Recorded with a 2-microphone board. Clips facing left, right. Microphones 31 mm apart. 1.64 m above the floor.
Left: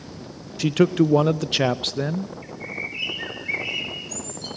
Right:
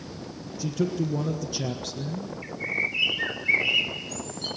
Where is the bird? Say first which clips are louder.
Right 4 dB; 20° right (ahead or behind), 3 m.